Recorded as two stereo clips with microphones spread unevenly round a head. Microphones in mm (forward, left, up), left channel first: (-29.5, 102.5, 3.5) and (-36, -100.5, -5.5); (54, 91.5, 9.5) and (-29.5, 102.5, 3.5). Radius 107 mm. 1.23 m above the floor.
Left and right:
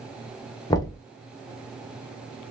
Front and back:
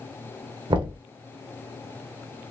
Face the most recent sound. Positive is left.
turn(degrees=160)